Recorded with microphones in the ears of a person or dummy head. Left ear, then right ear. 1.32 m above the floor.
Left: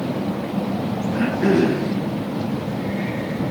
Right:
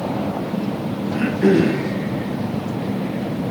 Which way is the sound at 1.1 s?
25° right (ahead or behind).